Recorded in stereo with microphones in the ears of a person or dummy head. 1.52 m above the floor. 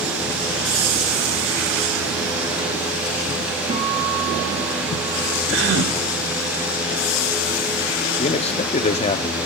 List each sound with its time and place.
3.7 s a guitar: 30° right (ahead or behind), 5 m
5.5 s a gasp: 75° right (ahead or behind), 3.5 m
8.2 s a man speaking: 30° left (ahead or behind), 0.6 m